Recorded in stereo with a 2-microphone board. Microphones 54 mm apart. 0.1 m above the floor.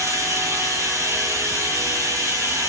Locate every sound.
0.0 s running water: 80° right, 2.0 m